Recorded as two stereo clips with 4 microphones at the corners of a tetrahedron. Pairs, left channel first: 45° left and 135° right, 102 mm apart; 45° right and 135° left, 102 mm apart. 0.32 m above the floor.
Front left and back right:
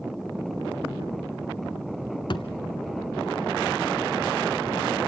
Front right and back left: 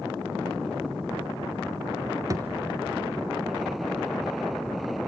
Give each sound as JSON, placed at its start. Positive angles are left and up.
{"t": 2.3, "sound": "a thud", "azimuth_deg": 80, "distance_m": 1.1}